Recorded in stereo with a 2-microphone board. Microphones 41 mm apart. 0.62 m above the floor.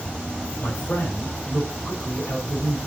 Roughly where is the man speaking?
Left.